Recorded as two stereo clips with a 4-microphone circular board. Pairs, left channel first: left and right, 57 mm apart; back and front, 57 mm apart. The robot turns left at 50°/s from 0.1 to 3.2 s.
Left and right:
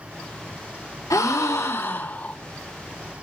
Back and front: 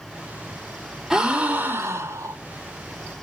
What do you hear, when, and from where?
1.1 s a gasp: 85° left, 2.5 m; by 2.4 s 20° left, 2.5 m